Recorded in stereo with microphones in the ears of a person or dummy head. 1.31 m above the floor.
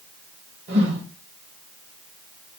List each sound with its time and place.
0.7 s a whoosh: 60° right (ahead or behind), 0.9 m